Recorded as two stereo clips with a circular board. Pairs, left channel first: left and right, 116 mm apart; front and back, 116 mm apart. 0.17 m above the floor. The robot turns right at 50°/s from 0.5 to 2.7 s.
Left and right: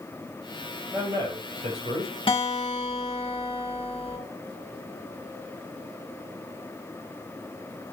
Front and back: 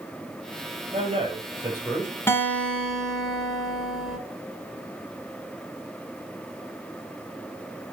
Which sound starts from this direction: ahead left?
A guitar, at 2.3 s.